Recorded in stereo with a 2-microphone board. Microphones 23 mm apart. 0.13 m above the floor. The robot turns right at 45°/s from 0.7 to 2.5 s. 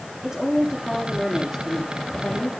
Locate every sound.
0.2 s a woman speaking: 25° right, 5.5 m; by 2.5 s 55° left, 5.5 m